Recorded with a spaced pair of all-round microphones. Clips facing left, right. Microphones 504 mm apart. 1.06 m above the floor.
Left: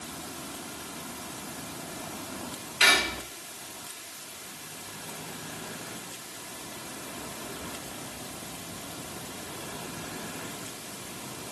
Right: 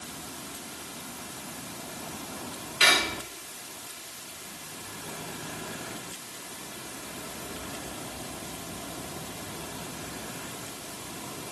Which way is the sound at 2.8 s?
15° left (ahead or behind).